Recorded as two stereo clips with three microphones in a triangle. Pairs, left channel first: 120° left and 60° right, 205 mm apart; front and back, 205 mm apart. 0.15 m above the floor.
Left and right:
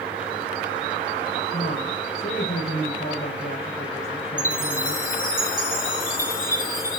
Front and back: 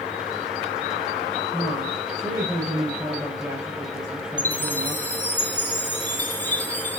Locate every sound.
1.5 s a woman speaking: 110° left, 6 m
4.4 s a chime: 80° left, 3 m